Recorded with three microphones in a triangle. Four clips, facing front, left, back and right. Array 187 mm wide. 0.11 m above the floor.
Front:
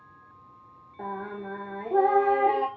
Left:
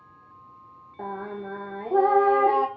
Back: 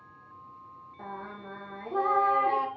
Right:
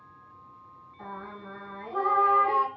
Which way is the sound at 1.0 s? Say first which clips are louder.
Left 7 dB, front 6 dB; 70° left.